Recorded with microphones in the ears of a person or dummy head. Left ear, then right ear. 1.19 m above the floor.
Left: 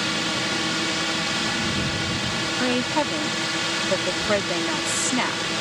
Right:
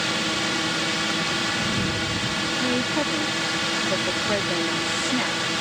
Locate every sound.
0.0 s a drone: centre (ahead or behind)
2.6 s a woman speaking: 40° left (ahead or behind)